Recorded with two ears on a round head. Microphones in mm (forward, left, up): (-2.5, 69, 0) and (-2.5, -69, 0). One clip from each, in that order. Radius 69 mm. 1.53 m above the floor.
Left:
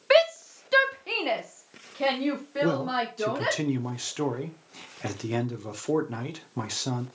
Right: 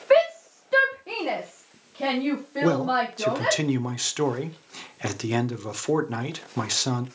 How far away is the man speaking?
About 0.8 m.